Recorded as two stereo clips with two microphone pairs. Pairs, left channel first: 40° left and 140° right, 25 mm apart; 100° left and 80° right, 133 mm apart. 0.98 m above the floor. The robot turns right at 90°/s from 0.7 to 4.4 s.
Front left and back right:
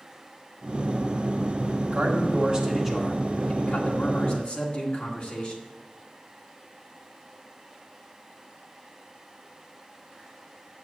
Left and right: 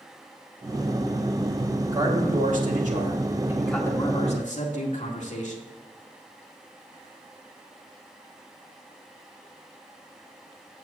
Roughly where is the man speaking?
Behind right.